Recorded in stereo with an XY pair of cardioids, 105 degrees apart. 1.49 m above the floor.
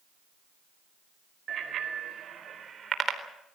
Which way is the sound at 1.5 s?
50° right.